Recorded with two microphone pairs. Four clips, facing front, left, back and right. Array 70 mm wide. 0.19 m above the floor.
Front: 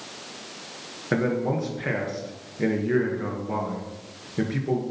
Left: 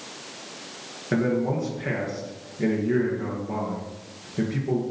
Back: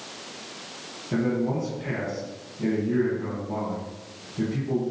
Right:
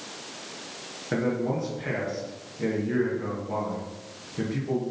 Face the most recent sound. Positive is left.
turn(degrees=10)